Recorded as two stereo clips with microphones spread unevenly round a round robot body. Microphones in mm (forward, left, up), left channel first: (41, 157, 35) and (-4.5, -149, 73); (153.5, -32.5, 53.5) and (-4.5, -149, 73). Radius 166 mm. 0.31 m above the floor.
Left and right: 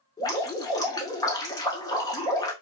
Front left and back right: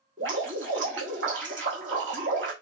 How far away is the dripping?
About 0.5 m.